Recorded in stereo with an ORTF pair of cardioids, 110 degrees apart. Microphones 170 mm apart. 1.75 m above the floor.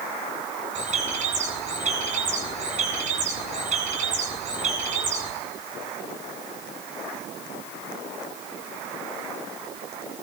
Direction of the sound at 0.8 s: 45° right.